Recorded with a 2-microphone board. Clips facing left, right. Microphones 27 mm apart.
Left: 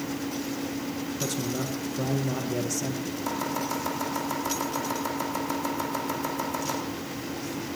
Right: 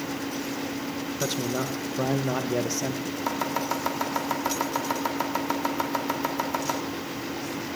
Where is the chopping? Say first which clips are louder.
Right 2 dB; 25° right (ahead or behind), 1.9 m.